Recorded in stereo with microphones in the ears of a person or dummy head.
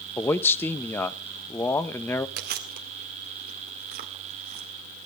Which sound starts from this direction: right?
Chewing, at 2.4 s.